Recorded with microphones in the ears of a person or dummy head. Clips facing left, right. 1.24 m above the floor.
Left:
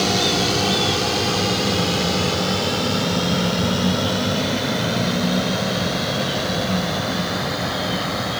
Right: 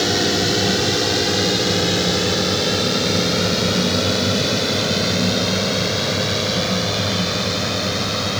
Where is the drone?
15° right (ahead or behind); by 8.4 s 35° right (ahead or behind).